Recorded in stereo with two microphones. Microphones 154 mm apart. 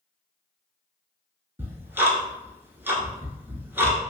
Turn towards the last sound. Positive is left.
turn(degrees=-15)  # may be behind; listen again after turning